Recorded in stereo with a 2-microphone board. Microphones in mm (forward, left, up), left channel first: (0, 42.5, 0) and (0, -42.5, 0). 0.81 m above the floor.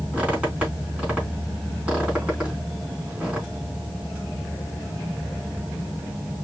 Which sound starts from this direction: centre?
A squeak, at 0.1 s.